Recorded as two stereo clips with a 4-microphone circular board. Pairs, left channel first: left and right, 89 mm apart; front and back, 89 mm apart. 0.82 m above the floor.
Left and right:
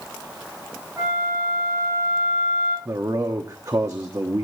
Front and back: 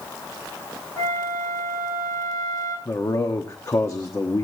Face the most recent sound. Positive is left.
turn(degrees=-45)